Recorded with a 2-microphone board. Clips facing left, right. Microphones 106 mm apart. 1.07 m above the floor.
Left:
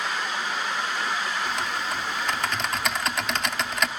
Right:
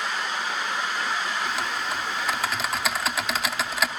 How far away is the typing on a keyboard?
About 1.0 m.